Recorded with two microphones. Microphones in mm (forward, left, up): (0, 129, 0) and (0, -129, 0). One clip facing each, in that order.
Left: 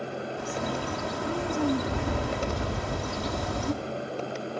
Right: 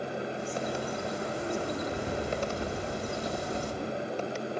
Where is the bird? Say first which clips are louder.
Left 2 dB; 80° left, 3 m.